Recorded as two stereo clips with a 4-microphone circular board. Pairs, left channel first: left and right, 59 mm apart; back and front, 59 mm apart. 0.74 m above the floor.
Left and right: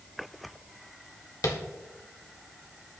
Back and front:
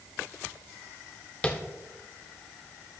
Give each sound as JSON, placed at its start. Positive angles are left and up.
{"t": 1.4, "sound": "tapping", "azimuth_deg": 110, "distance_m": 1.7}